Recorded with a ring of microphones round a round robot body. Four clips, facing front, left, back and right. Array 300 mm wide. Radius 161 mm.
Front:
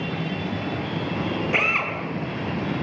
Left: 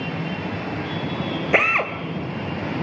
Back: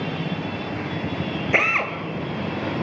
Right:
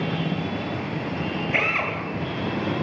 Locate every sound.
1.5 s a drill: 110° left, 2.5 m